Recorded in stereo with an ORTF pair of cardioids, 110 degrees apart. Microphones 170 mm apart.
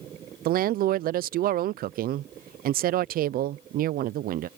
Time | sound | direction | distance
0.5 | a woman speaking | 60° right | ?